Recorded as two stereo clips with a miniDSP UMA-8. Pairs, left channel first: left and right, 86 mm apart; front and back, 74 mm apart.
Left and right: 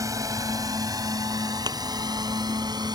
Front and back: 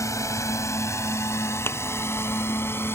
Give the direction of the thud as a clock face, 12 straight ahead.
2 o'clock.